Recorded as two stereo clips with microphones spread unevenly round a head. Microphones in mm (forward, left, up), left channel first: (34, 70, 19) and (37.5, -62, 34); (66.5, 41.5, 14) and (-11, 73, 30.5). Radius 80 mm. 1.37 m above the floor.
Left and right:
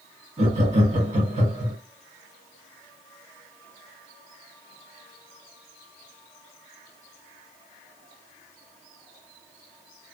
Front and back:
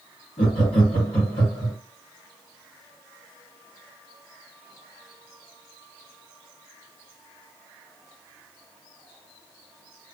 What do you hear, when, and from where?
0.4 s laughter: 55° right, 1.6 m